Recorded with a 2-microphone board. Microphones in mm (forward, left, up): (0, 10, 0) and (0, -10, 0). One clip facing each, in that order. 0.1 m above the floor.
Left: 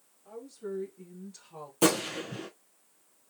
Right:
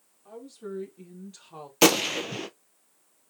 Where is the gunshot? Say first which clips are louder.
Right 6 dB; 60° right (ahead or behind), 0.7 m.